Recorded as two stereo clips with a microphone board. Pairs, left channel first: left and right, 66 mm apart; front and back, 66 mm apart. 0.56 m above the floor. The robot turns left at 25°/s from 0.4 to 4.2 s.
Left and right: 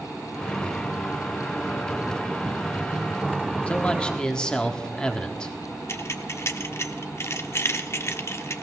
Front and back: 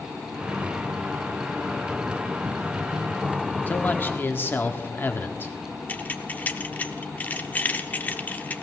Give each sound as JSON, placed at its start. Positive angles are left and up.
{"t": 3.7, "sound": "a man speaking", "azimuth_deg": 35, "distance_m": 1.3}
{"t": 5.9, "sound": "keys jangling", "azimuth_deg": 55, "distance_m": 0.8}